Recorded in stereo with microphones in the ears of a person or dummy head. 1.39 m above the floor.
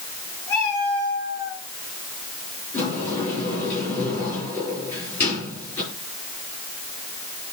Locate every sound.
0.5 s a cat meowing: 20° left (ahead or behind), 4 m; by 1.6 s 15° left (ahead or behind), 3.5 m
2.7 s a sliding door: 15° left (ahead or behind), 6 m